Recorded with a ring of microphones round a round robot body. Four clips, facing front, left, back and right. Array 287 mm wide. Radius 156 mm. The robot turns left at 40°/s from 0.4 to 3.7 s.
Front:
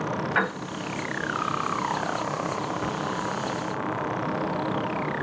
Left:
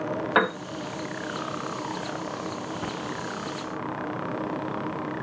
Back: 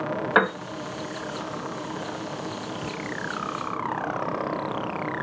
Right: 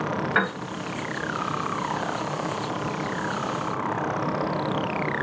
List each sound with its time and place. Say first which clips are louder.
0.3 s a piano: left 4 dB, back 6 dB; 155° left, 0.8 m; by 0.6 s 150° left, 0.8 m